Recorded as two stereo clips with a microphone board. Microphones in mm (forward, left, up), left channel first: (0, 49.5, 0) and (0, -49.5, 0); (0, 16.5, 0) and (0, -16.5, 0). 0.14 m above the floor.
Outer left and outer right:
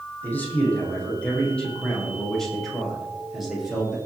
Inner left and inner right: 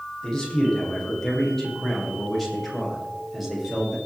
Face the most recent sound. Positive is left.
turn(degrees=-5)  # may be behind; listen again after turning